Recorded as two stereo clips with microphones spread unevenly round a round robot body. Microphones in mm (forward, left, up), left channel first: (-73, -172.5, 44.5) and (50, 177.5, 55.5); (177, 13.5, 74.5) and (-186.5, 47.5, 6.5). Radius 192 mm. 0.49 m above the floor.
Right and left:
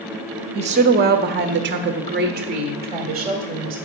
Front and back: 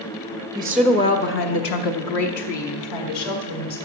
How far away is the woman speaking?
About 0.8 m.